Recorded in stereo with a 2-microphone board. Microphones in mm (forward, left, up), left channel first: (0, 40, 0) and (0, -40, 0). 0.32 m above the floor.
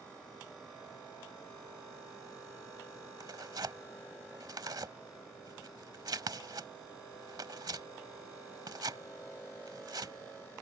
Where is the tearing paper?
60° right (ahead or behind).